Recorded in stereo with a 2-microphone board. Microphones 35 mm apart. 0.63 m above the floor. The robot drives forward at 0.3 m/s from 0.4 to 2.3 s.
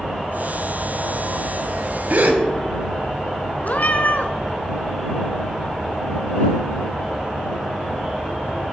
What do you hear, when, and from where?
0.0 s an insect: 15° right (ahead or behind), 4 m; by 8.7 s 20° right (ahead or behind), 3.5 m
2.1 s a gasp: 50° right (ahead or behind), 1.0 m; by 2.4 s 55° right (ahead or behind), 0.9 m
3.6 s a cat meowing: 50° left (ahead or behind), 0.9 m